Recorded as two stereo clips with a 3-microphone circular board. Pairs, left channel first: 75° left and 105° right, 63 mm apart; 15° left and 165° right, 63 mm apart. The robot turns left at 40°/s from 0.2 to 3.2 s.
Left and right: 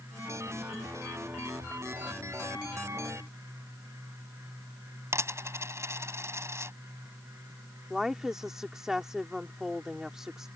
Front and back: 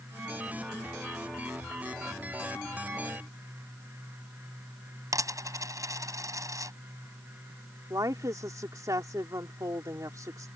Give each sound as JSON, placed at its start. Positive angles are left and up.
{"t": 5.1, "sound": "a dropped coin", "azimuth_deg": -145}
{"t": 7.9, "sound": "a woman speaking", "azimuth_deg": 175}